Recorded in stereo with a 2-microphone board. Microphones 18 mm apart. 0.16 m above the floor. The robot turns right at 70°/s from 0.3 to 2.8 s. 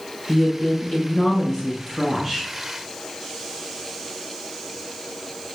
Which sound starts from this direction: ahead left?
A woman speaking, at 0.3 s.